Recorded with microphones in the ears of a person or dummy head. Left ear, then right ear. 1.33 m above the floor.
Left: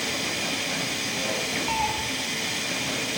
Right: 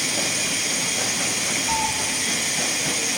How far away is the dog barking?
I don't hear a dog barking.